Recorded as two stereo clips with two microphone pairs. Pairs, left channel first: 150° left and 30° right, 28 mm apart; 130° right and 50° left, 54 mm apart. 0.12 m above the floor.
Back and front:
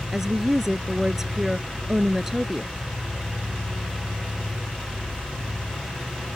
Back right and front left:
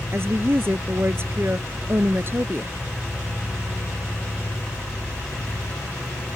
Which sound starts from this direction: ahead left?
A woman speaking, at 0.1 s.